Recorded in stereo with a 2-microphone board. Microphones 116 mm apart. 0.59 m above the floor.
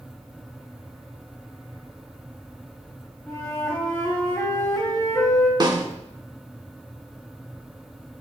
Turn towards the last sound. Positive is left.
turn(degrees=-35)  # may be behind; listen again after turning